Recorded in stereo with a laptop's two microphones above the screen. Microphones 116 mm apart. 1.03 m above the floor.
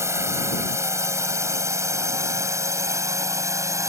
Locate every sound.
0.0 s a drone: 25° right (ahead or behind)